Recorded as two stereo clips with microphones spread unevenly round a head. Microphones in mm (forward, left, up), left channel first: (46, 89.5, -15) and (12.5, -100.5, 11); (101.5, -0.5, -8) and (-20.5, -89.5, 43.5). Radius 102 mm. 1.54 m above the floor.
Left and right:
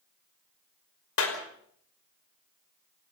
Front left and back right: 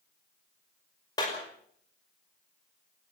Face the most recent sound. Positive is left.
turn(degrees=110)